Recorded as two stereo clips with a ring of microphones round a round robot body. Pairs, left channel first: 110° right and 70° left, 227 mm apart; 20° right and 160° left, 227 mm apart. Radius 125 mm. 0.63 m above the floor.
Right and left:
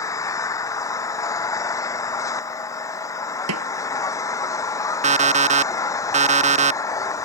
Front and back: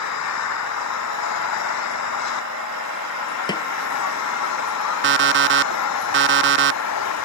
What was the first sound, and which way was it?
An engine running, 35° right.